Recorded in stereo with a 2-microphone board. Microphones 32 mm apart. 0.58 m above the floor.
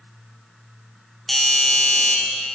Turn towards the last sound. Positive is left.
turn(degrees=5)  # may be behind; listen again after turning